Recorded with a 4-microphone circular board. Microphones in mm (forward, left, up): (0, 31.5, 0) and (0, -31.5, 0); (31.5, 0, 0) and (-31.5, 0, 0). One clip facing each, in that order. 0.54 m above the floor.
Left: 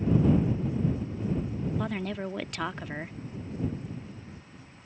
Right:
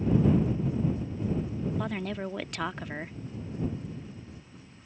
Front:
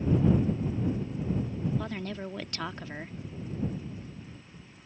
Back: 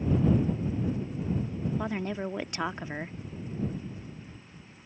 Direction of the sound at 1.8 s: 175° left.